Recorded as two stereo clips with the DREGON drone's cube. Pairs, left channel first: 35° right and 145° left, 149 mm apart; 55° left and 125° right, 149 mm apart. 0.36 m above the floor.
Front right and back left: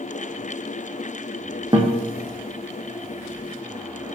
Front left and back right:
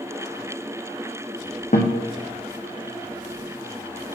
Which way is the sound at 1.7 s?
85° left.